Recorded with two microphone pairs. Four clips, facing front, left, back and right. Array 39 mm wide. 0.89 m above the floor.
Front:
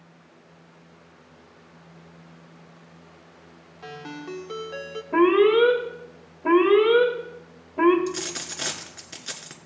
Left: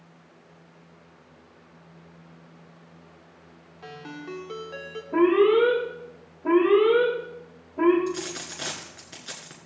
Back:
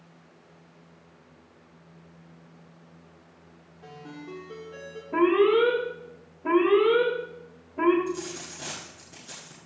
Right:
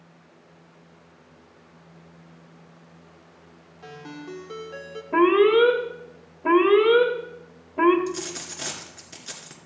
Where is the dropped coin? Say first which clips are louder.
Left 1 dB, front 2 dB; 15° left, 1.9 m.